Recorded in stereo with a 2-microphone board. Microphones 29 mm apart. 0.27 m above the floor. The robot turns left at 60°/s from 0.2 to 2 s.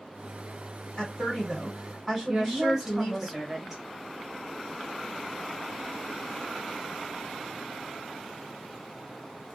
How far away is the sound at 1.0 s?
About 1.7 m.